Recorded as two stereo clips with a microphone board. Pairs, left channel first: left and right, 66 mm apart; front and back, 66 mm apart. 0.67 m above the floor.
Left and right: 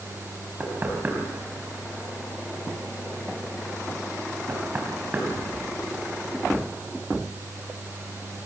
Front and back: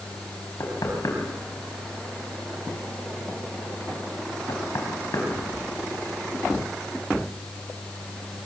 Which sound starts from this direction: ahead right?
Knocking, at 0.6 s.